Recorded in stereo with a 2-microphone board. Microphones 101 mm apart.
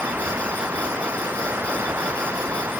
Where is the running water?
20° right (ahead or behind).